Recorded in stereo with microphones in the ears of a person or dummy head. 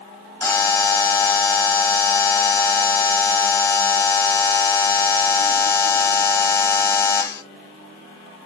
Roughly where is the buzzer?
Centre.